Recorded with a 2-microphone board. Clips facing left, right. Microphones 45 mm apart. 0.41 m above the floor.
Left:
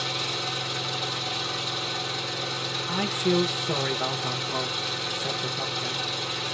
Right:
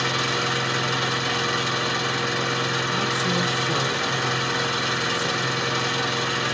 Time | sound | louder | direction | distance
0.0 | an engine running | right 7 dB | 85° right | 1.1 m
2.9 | a man speaking | right 2 dB | 15° left (ahead or behind) | 0.8 m